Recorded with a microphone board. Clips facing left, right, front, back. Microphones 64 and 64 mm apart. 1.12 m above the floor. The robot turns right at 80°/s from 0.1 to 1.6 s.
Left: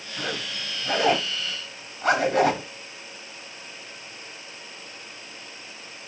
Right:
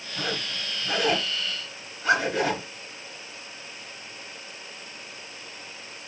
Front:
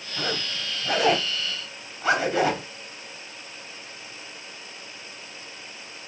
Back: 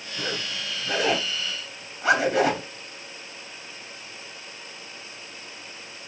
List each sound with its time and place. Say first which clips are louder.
0.2 s a zipper: even, front 1 dB; 15° right, 1.5 m; by 2.7 s 100° left, 1.5 m